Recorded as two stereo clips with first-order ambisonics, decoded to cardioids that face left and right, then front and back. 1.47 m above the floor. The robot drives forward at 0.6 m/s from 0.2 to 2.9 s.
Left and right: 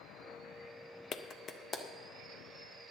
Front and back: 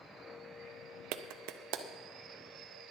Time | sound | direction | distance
1.1 | a clap | 150° left | 0.6 m